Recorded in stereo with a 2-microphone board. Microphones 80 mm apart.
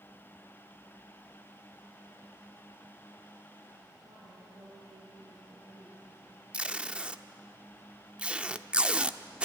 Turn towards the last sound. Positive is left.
turn(degrees=-15)  # may be behind; listen again after turning